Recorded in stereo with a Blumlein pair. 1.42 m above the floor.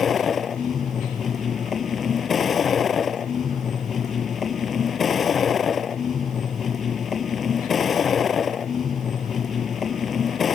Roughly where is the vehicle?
Ahead left.